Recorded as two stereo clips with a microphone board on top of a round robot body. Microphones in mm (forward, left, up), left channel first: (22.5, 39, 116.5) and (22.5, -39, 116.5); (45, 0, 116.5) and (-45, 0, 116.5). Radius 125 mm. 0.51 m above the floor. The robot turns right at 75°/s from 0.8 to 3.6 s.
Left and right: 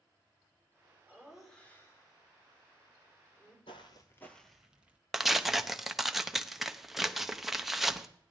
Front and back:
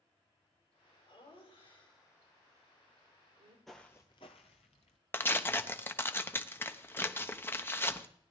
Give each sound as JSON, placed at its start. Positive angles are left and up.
{"t": 1.1, "sound": "laughter", "azimuth_deg": -25, "distance_m": 3.5}
{"t": 3.7, "sound": "footsteps", "azimuth_deg": 90, "distance_m": 0.6}
{"t": 5.1, "sound": "tearing paper", "azimuth_deg": -5, "distance_m": 1.0}